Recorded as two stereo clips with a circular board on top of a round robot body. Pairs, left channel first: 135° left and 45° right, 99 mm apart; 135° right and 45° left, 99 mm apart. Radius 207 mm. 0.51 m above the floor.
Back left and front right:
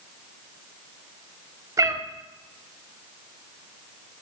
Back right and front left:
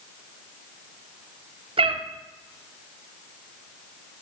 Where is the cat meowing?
15° left, 0.9 m.